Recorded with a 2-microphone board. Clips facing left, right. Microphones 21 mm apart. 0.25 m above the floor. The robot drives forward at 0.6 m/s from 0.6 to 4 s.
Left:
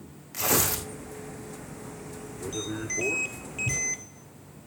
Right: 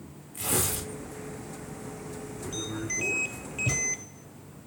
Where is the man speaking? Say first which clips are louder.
Left 3 dB; 80° left, 7.5 m.